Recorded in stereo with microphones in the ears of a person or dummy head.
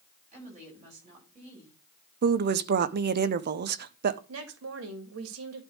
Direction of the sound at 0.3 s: 40° right (ahead or behind).